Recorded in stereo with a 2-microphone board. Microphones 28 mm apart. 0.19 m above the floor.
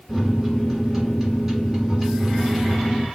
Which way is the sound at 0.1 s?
5° right (ahead or behind).